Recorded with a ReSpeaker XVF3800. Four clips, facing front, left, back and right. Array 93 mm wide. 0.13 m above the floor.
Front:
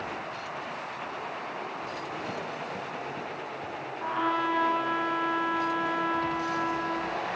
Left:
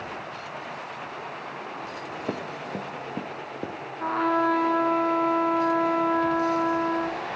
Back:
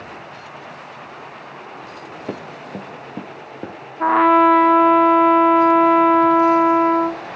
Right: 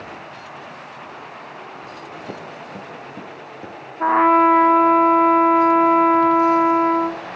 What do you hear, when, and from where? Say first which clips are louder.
2.3 s running footsteps: left 4 dB, back 4 dB; 140° left, 5 m; by 3.8 s 150° left, 4.5 m
4.0 s a trumpet: right 10 dB, back 16 dB; 145° right, 1.6 m